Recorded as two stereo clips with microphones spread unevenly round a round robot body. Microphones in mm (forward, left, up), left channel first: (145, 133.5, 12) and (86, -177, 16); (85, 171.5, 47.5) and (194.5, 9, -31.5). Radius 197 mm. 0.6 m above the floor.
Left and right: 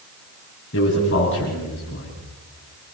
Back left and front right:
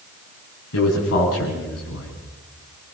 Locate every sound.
0.7 s a man speaking: 140° left, 6.5 m